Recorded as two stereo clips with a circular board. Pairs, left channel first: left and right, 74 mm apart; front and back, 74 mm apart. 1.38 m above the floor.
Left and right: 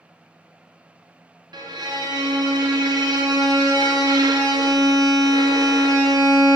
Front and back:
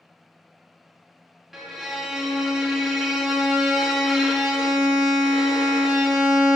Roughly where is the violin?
Right.